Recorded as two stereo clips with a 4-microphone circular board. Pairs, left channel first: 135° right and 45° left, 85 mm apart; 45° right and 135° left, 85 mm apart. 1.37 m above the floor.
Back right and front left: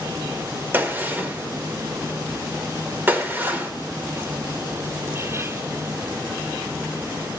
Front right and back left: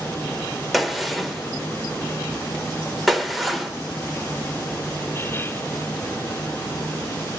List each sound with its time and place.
0.7 s a gunshot: 45° left, 1.1 m